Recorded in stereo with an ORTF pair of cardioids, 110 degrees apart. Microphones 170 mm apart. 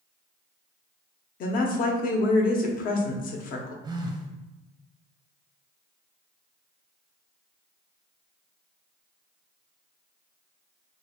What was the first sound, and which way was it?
A woman speaking, 60° left.